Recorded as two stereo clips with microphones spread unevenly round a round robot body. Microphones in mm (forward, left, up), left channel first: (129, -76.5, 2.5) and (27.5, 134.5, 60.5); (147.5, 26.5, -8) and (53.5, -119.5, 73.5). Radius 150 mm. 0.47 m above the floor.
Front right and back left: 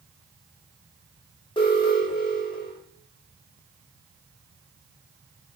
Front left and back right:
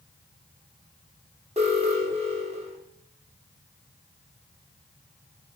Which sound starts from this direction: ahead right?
An alarm, at 1.6 s.